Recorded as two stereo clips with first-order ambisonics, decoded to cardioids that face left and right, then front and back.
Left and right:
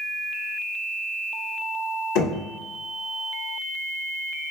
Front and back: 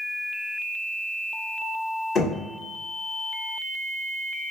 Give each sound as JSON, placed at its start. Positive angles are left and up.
{"t": 2.1, "sound": "knocking", "azimuth_deg": 65, "distance_m": 1.1}